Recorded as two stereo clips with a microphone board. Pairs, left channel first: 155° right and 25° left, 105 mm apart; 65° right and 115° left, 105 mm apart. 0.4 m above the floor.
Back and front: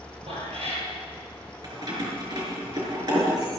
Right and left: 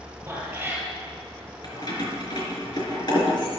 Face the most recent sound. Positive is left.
turn(degrees=-25)